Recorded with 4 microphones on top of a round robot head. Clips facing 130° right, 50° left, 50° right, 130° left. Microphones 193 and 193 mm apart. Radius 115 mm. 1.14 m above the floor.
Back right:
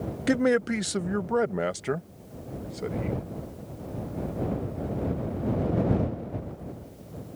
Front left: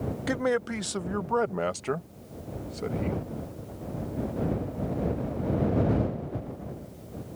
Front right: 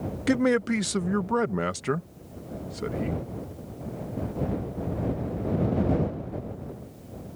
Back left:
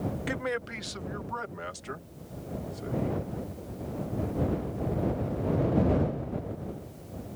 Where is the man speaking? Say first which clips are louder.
Back right 5 dB, front right 11 dB; 75° right; by 3.2 s 45° right.